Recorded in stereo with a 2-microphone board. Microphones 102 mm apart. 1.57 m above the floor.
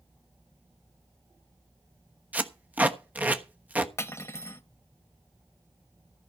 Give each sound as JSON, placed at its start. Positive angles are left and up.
{"t": 2.3, "sound": "tape being pulled", "side_deg": -15, "distance_m": 1.1}
{"t": 4.0, "sound": "cutlery clinking", "side_deg": 30, "distance_m": 1.0}